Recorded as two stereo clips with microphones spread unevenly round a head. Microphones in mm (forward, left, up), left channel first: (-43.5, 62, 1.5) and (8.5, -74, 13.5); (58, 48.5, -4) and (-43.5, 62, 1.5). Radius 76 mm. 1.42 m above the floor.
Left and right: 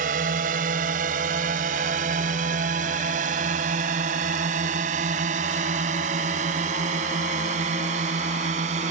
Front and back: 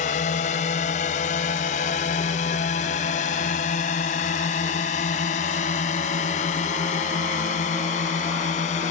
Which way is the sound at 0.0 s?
30° right.